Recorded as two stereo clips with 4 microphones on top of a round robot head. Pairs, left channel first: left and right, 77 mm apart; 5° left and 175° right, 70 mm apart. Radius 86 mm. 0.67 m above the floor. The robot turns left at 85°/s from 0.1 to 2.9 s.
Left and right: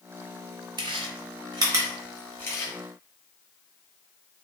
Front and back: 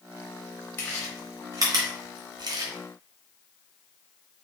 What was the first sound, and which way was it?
Chewing, 60° right.